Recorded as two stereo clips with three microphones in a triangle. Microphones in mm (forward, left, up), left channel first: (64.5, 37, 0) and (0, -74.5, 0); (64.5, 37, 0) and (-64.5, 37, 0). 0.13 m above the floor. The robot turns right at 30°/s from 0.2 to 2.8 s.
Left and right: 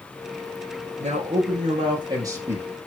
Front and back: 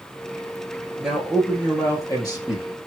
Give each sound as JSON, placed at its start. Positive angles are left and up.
{"t": 1.0, "sound": "a man speaking", "azimuth_deg": -95, "distance_m": 4.5}